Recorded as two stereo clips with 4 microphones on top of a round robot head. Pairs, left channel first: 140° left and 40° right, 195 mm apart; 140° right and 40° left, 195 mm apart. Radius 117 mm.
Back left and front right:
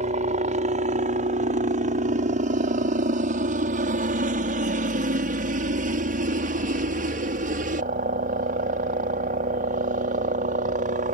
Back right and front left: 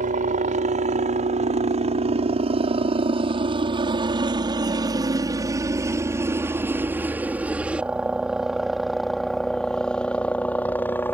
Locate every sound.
0.0 s a helicopter: straight ahead; by 11.2 s 65° right